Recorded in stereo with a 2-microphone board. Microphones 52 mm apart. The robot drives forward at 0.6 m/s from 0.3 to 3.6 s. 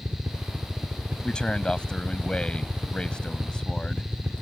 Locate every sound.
0.0 s a helicopter: 30° right (ahead or behind)
1.2 s a man speaking: 15° left (ahead or behind); by 4.0 s 20° left (ahead or behind)